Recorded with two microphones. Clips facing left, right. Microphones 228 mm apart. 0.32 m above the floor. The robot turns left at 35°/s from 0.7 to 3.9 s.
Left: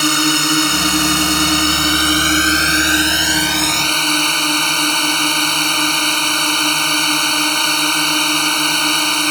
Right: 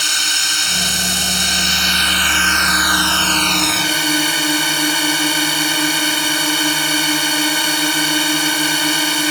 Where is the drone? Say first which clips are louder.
Left 19 dB; 105° left; by 9.3 s 10° right.